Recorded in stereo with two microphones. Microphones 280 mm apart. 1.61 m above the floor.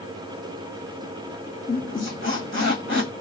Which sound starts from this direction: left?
A squeak, at 1.7 s.